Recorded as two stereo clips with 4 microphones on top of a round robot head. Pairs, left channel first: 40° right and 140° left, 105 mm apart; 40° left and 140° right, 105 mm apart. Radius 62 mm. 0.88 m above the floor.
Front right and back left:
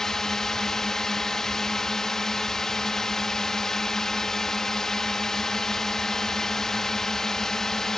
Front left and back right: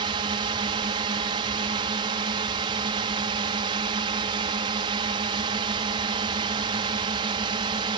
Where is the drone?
125° right.